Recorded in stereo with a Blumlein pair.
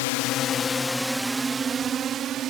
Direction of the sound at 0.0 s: 50° left.